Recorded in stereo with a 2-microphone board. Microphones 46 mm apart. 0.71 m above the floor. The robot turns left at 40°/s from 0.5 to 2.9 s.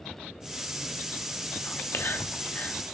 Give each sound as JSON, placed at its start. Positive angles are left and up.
{"t": 1.6, "sound": "whispering", "side_deg": 60, "distance_m": 0.9}